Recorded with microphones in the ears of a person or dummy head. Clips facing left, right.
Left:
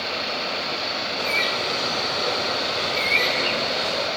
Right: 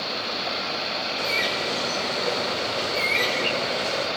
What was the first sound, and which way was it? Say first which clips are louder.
A bird: left 1 dB; 10° right (ahead or behind).